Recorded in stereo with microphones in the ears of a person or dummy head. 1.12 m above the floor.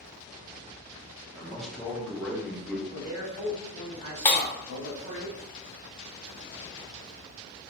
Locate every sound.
1.4 s a man speaking: 5° left (ahead or behind), 0.9 m
2.9 s a man speaking: 35° right (ahead or behind), 2.0 m
4.2 s breaking glass: 15° left (ahead or behind), 1.2 m